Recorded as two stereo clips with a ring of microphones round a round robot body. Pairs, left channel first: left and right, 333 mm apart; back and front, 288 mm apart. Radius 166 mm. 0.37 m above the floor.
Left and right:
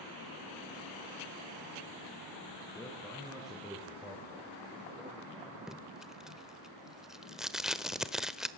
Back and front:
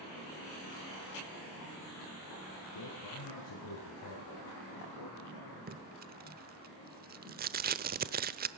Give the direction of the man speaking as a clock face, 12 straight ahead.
6 o'clock.